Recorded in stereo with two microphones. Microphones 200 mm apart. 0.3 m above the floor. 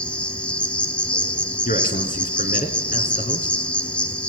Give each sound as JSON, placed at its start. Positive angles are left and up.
{"t": 0.0, "sound": "an insect", "side_deg": 5, "distance_m": 1.3}
{"t": 1.6, "sound": "a man speaking", "side_deg": 45, "distance_m": 3.0}